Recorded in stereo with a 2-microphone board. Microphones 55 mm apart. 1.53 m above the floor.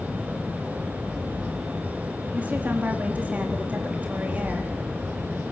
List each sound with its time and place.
2.3 s a woman speaking: 30° right (ahead or behind), 3.5 m